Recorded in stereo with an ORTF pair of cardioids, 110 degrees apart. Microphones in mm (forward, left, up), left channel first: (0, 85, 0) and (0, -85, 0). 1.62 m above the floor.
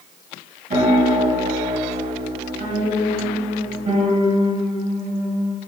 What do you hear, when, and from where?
0.7 s a piano: 55° right, 1.8 m